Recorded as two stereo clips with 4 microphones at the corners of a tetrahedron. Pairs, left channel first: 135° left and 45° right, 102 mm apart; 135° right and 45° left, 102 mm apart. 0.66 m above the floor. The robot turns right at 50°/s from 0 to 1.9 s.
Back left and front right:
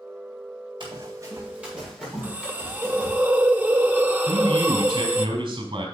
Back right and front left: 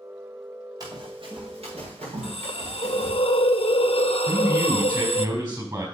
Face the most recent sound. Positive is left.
turn(degrees=-5)